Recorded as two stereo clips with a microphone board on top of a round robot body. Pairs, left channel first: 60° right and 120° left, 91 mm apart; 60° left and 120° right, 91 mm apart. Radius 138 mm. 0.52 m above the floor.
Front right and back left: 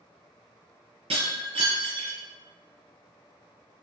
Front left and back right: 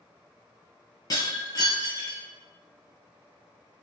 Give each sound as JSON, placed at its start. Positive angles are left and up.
{"t": 1.1, "sound": "breaking glass", "azimuth_deg": 110, "distance_m": 0.6}